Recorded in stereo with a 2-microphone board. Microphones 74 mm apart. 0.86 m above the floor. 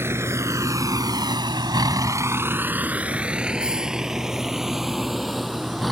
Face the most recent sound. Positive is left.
turn(degrees=0)  # may be behind; listen again after turning